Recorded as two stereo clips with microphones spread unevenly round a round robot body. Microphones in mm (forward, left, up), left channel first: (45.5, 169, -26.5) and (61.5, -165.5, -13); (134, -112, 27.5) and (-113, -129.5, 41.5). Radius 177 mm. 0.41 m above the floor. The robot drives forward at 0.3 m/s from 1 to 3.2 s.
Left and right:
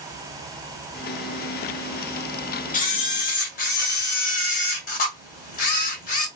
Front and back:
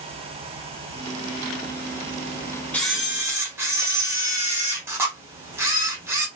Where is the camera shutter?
75° left, 0.6 m; by 6.3 s 110° left, 0.6 m.